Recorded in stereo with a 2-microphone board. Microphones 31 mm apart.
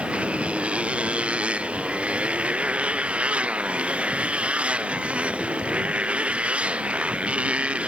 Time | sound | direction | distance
0.0 | a motorcycle | 40° right (ahead or behind) | ?